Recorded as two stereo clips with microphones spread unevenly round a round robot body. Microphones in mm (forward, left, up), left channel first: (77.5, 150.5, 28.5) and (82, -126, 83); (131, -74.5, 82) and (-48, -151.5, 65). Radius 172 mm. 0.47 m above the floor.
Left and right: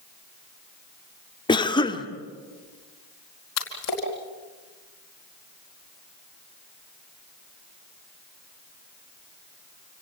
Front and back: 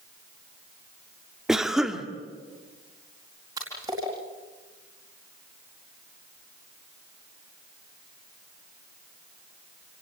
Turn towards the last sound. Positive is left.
turn(degrees=125)